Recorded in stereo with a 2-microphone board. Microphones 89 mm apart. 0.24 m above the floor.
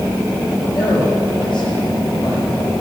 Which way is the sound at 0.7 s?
80° left.